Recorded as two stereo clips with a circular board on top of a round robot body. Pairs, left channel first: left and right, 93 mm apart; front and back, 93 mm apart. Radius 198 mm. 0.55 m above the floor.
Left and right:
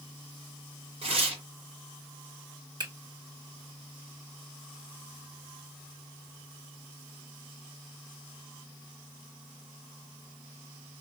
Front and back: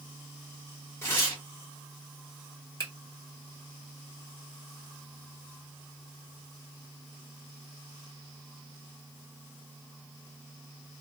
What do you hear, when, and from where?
1.0 s tearing paper: 70° right, 1.7 m
2.8 s a finger snap: 55° right, 2.0 m